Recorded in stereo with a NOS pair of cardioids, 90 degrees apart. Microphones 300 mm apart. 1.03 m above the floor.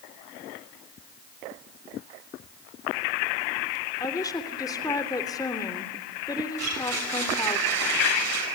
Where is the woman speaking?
15° left, 3 m.